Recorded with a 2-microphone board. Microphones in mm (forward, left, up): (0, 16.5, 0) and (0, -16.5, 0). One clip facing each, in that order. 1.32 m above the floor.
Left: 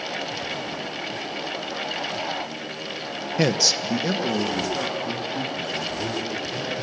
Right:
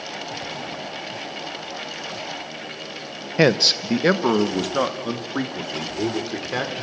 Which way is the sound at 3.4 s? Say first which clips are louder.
Right 5 dB; 30° right (ahead or behind).